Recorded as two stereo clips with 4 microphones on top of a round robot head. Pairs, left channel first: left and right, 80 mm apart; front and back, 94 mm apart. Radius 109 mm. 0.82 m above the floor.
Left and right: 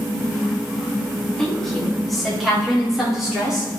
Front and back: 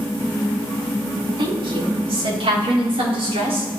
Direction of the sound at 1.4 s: 170° left.